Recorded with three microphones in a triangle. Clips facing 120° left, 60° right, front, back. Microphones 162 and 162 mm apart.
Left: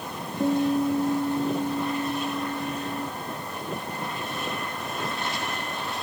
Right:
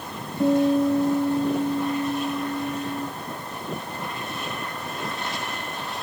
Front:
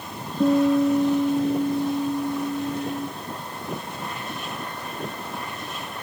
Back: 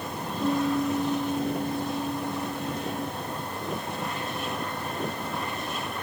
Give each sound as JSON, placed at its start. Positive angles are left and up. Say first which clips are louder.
{"t": 0.4, "sound": "a guitar", "louder": "right 4 dB, front 7 dB", "azimuth_deg": 10, "distance_m": 3.0}